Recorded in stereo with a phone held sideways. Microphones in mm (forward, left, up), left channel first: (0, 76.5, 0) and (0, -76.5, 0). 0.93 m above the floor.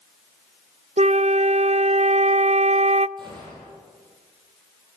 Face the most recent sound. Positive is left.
turn(degrees=-30)  # may be behind; listen again after turning